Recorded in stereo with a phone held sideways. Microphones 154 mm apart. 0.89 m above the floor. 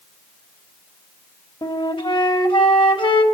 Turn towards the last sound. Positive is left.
turn(degrees=35)  # may be behind; listen again after turning